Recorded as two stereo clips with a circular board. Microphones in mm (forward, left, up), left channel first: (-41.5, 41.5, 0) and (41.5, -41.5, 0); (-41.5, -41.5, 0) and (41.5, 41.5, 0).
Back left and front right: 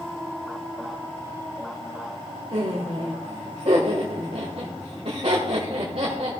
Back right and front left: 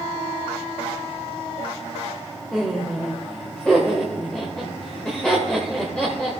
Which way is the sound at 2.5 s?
55° right.